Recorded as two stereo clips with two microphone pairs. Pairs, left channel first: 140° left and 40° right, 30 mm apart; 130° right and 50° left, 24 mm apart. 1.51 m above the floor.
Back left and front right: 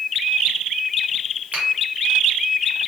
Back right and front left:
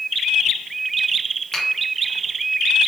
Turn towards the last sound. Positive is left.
turn(degrees=-75)